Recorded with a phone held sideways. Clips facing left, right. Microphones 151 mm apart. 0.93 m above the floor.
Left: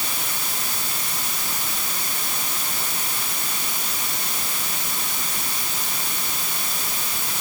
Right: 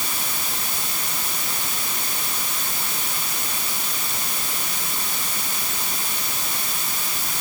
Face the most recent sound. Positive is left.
No sound to turn to.